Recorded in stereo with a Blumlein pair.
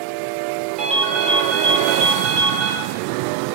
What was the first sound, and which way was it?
A ringtone, 35° right.